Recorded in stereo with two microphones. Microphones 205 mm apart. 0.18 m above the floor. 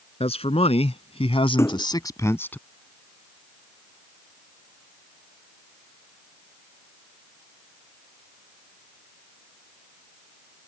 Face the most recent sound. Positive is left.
turn(degrees=10)  # may be behind; listen again after turning